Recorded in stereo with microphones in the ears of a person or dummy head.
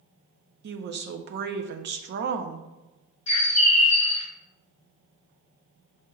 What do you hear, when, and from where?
0.6 s a woman speaking: 60° right (ahead or behind), 0.5 m
3.3 s a bird: 30° left (ahead or behind), 0.7 m